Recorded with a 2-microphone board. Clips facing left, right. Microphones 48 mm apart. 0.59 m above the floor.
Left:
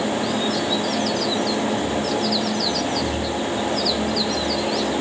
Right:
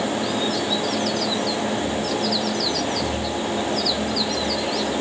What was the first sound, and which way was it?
Only background noise.